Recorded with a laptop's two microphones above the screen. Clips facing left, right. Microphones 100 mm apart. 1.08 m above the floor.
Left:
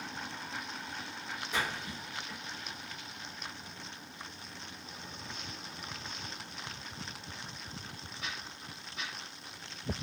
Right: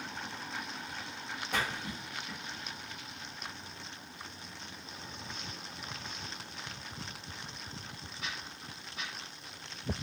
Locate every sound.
1.5 s a splash: 65° right (ahead or behind), 1.5 m